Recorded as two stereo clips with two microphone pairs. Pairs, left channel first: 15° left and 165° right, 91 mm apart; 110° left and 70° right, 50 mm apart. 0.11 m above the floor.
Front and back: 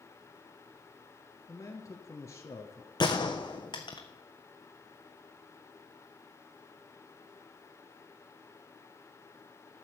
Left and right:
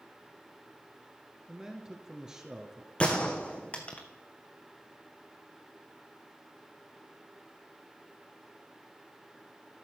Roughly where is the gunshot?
Ahead left.